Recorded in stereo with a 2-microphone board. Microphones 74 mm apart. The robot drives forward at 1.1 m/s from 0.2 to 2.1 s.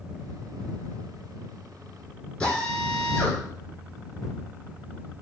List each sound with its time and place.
2.4 s a drill: 10° left (ahead or behind), 4 m